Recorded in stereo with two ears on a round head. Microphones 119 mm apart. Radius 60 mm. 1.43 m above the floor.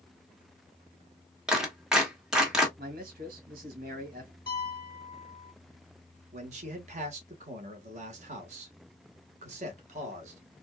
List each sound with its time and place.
1.5 s a clap: 5° right (ahead or behind), 1.3 m
2.8 s a man speaking: 80° right, 1.9 m
4.5 s a piano: 35° left (ahead or behind), 1.5 m
6.3 s a man speaking: 55° right (ahead or behind), 1.4 m